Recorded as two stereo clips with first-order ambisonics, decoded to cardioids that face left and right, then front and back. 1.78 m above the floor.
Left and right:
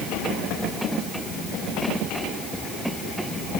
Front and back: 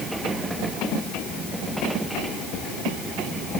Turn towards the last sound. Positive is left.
No sound to turn to.